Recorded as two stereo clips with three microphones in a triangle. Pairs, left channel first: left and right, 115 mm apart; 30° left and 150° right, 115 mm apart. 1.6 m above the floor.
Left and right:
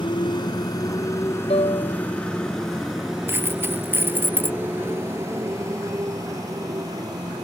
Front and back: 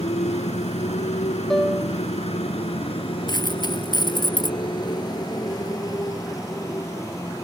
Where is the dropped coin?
20° right.